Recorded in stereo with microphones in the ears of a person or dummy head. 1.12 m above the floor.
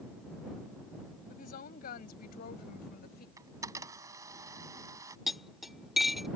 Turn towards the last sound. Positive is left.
turn(degrees=0)  # may be behind; listen again after turning